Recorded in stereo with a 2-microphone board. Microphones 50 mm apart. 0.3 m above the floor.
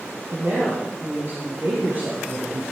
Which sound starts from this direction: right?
A woman speaking, at 0.3 s.